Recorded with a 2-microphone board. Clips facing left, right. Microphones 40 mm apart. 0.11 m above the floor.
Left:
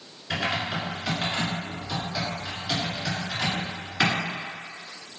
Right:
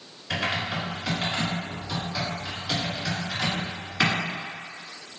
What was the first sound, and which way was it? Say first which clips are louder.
Typing on a keyboard: even; 5° left (ahead or behind).